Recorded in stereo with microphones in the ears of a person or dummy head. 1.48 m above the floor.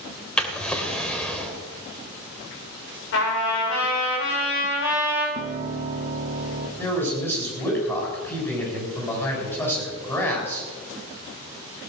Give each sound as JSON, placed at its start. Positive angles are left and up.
{"t": 0.4, "sound": "a drawer", "side_deg": 5, "distance_m": 2.5}
{"t": 3.1, "sound": "a trumpet", "side_deg": 65, "distance_m": 6.0}
{"t": 5.3, "sound": "a piano", "side_deg": -40, "distance_m": 1.4}
{"t": 6.8, "sound": "a man speaking", "side_deg": 15, "distance_m": 7.0}